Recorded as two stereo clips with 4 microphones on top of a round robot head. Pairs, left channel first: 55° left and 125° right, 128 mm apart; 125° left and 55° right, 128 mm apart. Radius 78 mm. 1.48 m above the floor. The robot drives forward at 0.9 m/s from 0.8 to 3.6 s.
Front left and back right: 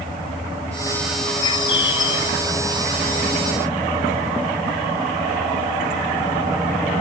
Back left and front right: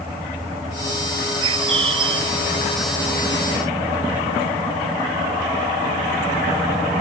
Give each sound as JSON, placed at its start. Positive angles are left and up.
{"t": 1.4, "sound": "a bird", "azimuth_deg": 0}